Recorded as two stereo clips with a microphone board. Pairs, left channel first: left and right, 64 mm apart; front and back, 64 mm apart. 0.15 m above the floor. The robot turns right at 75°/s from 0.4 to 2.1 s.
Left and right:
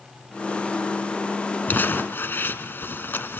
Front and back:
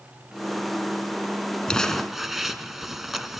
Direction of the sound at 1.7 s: 65° left.